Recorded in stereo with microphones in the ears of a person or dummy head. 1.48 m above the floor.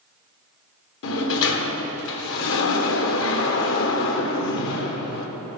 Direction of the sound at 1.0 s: 70° left (ahead or behind).